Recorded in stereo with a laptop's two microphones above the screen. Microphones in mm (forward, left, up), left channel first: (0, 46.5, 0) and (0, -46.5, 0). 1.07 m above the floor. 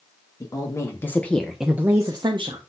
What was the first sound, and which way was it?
A woman speaking, 35° left (ahead or behind).